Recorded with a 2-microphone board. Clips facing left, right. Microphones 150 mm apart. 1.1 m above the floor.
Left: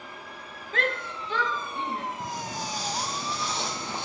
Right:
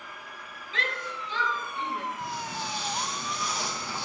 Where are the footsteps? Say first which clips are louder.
Left 1 dB; 45° left (ahead or behind), 2.5 m; by 4.1 s 20° left (ahead or behind), 1.8 m.